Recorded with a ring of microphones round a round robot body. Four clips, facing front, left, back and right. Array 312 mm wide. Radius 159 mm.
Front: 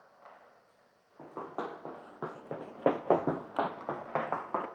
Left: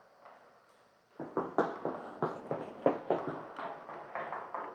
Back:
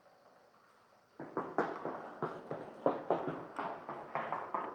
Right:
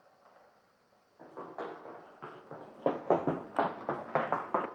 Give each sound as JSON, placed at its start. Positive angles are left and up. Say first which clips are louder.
{"t": 1.2, "sound": "running footsteps", "louder": "left 10 dB, back 3 dB", "azimuth_deg": 105, "distance_m": 1.5}